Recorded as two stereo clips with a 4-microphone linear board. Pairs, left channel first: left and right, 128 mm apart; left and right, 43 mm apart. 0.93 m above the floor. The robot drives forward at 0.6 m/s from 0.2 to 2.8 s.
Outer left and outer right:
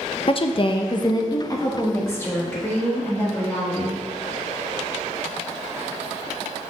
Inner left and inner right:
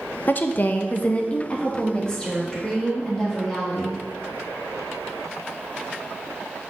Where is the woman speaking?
45° left (ahead or behind), 0.6 m; by 4.0 s 15° left (ahead or behind), 1.6 m.